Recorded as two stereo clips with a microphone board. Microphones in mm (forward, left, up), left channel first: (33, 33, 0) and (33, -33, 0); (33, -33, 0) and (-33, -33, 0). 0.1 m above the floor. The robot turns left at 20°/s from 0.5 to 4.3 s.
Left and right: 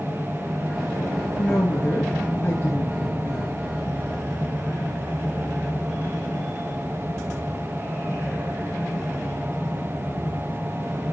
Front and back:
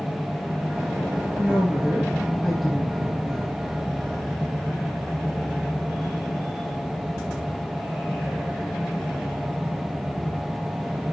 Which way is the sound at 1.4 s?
115° left.